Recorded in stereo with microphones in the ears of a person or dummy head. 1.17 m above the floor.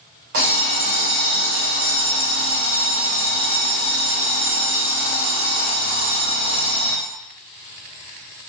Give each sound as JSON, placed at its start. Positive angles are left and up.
{"t": 0.3, "sound": "an alarm clock", "side_deg": -40, "distance_m": 0.8}